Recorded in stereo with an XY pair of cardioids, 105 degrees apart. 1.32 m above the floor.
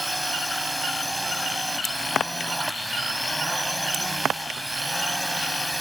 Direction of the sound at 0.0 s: Straight ahead.